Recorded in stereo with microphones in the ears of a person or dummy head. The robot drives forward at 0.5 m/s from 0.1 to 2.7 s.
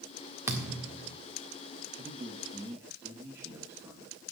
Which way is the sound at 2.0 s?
25° right (ahead or behind).